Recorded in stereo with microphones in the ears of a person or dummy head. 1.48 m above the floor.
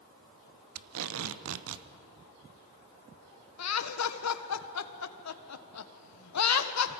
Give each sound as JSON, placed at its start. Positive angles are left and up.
{"t": 0.8, "sound": "tape being pulled", "side_deg": -75, "distance_m": 0.8}
{"t": 3.6, "sound": "laughter", "side_deg": 80, "distance_m": 1.4}